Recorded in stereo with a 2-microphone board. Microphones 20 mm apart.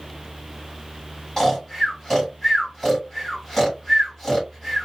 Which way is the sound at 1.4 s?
15° left (ahead or behind).